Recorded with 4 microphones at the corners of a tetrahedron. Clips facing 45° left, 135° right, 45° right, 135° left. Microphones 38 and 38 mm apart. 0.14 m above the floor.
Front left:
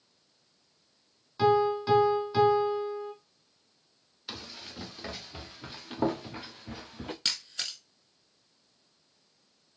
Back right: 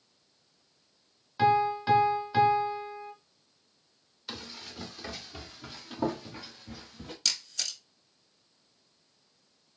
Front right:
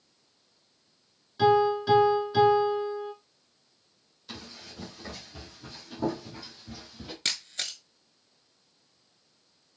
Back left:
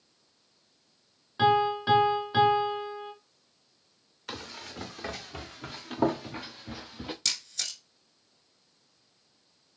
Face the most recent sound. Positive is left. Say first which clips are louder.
# back right 2 dB, front right 5 dB
turn(degrees=-5)